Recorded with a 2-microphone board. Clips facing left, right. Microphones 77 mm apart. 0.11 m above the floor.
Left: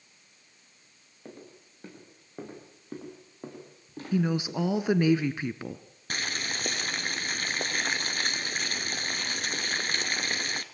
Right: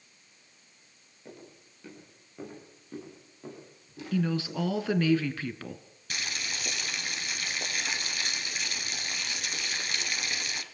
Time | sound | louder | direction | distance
1.2 | footsteps | left 2 dB | 35° left (ahead or behind) | 9.5 m
4.1 | a woman speaking | left 2 dB | 20° left (ahead or behind) | 1.2 m
6.1 | boiling | left 3 dB | 45° left (ahead or behind) | 1.5 m